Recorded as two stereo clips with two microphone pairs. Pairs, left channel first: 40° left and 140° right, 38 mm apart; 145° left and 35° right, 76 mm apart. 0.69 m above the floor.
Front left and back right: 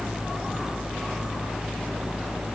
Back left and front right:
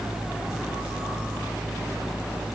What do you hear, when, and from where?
Only background noise.